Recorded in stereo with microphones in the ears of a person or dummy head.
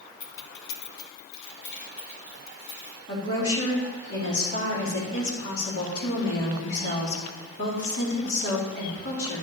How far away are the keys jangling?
About 0.9 m.